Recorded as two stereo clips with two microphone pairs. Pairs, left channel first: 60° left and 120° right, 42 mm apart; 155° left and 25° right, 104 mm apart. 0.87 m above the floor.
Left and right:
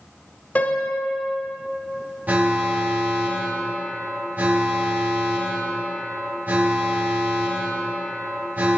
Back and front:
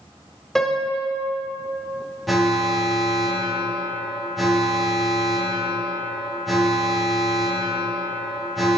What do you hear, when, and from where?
0.6 s a piano: 70° left, 0.5 m
2.3 s an alarm: 110° right, 0.9 m